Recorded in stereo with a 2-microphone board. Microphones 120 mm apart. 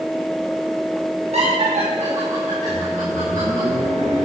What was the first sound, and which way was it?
Laughter, 65° right (ahead or behind).